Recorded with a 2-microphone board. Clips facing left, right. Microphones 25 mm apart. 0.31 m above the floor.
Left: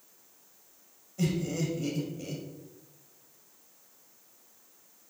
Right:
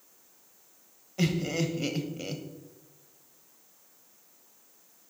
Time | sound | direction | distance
1.2 | laughter | 40° right (ahead or behind) | 1.2 m